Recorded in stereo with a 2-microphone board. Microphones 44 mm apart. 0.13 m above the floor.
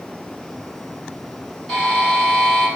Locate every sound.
1.7 s a buzzer: 10° left (ahead or behind), 1.8 m